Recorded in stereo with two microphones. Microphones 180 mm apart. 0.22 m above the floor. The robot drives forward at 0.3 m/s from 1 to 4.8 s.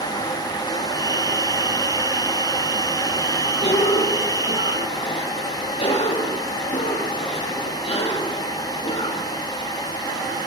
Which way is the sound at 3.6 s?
35° left (ahead or behind).